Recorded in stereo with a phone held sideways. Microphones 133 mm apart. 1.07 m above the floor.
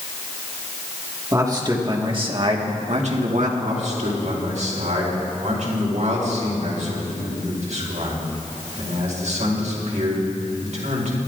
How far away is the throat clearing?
I don't hear throat clearing.